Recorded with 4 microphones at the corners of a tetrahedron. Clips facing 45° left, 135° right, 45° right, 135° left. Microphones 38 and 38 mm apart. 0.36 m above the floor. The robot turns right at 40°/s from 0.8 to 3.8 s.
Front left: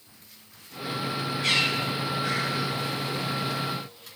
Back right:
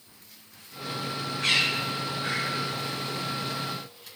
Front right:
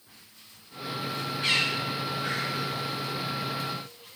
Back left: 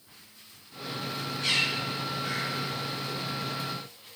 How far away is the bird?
About 5 m.